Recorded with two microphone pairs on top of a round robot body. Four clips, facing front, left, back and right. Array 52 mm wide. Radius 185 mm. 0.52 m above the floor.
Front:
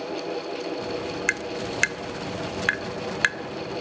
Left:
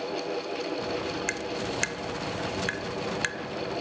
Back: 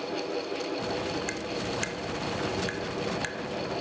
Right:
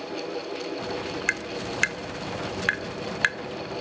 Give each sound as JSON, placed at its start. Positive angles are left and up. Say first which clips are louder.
{"t": 1.3, "sound": "tapping", "louder": "right 2 dB, front 5 dB", "azimuth_deg": -40, "distance_m": 0.6}